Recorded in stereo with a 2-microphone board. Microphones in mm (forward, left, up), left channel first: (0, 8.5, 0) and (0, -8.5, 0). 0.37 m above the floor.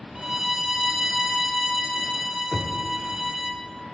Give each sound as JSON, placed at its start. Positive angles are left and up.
{"t": 0.1, "sound": "a violin", "side_deg": -30, "distance_m": 0.9}
{"t": 2.5, "sound": "knocking", "side_deg": -10, "distance_m": 0.5}